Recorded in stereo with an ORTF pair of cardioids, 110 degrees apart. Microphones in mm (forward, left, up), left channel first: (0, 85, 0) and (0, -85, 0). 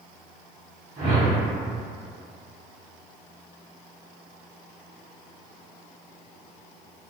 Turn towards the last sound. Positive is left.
turn(degrees=-50)